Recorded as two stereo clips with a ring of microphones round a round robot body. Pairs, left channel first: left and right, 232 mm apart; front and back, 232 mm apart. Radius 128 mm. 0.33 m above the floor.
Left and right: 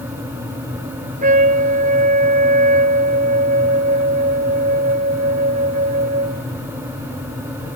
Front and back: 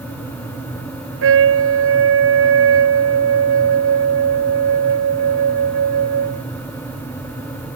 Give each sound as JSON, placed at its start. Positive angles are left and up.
{"t": 1.2, "sound": "a trumpet", "azimuth_deg": -155}